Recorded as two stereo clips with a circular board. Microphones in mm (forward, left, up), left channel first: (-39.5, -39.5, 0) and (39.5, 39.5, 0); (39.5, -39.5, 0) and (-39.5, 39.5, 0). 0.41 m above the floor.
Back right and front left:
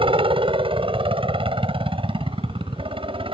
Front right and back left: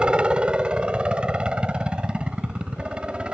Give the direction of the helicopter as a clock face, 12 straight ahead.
10 o'clock.